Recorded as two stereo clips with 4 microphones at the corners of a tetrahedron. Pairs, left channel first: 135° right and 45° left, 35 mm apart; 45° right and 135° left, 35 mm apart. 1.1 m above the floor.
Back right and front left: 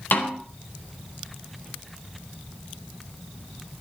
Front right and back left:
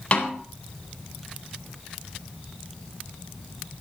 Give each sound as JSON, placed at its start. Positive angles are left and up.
{"t": 0.1, "sound": "a snare drum", "azimuth_deg": -105, "distance_m": 3.5}